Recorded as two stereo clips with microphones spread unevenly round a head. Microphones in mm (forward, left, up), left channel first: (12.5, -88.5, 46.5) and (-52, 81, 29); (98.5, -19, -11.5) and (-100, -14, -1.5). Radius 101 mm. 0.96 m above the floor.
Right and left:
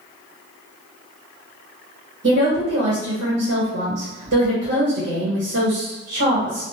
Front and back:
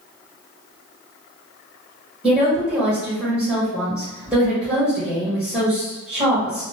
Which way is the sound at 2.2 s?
90° left.